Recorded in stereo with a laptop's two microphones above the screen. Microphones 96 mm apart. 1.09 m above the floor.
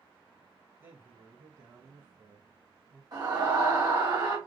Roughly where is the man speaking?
Right.